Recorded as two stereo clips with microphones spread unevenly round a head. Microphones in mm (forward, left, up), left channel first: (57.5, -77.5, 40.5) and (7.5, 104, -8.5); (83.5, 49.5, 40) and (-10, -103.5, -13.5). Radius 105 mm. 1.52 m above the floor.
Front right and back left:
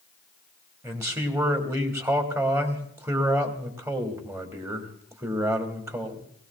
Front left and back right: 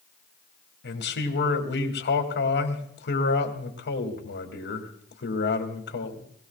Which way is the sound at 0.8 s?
30° left.